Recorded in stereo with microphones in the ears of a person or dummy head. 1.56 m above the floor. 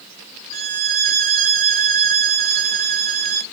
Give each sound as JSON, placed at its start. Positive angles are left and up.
{"t": 0.5, "sound": "a violin", "side_deg": -40, "distance_m": 1.0}